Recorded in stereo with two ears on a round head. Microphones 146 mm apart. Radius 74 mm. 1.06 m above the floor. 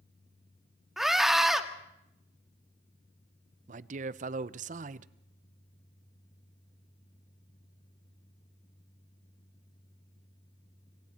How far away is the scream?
About 1.7 m.